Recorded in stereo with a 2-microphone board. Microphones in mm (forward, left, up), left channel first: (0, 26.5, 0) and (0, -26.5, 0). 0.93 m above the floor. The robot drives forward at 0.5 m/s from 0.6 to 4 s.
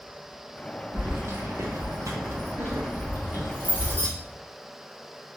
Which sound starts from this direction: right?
Keys jangling, at 0.9 s.